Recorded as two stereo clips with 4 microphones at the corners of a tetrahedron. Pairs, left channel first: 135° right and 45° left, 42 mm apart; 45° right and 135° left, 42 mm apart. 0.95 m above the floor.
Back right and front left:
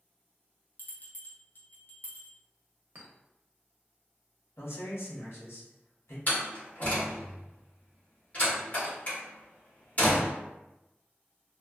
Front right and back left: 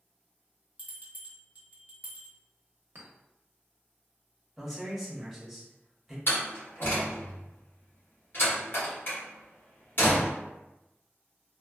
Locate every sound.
0.8 s a bell: 175° right, 0.7 m
3.0 s a clink: 95° left, 0.8 m
4.6 s a man speaking: 135° right, 1.2 m
6.3 s a door slam: 80° right, 1.4 m